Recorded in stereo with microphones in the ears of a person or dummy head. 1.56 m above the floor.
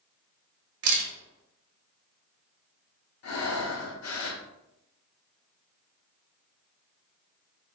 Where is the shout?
I don't hear a shout.